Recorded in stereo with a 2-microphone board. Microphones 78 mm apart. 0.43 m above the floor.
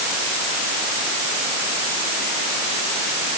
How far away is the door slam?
No door slam in this recording.